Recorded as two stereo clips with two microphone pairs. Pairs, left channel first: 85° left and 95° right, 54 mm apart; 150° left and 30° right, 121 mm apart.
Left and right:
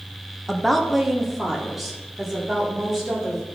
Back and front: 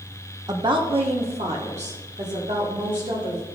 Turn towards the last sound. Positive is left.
turn(degrees=-15)